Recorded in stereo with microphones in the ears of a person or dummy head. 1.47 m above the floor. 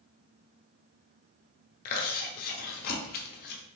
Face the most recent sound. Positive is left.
turn(degrees=50)  # may be behind; listen again after turning